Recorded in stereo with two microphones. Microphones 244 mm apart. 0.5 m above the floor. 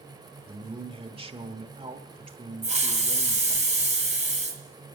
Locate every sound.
0.5 s a man speaking: 25° right (ahead or behind), 1.4 m
2.6 s a hiss: 30° right (ahead or behind), 2.5 m